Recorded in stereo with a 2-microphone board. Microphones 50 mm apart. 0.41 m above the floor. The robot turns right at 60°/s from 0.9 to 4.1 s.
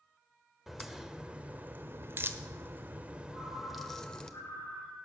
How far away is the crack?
About 1.1 m.